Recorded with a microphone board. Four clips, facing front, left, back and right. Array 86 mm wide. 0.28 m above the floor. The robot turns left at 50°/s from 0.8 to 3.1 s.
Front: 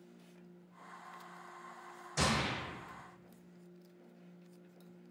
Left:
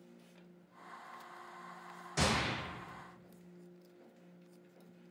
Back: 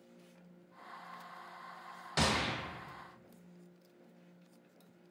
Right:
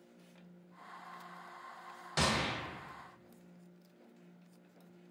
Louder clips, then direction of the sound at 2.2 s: Even, back 1 dB; 145° right.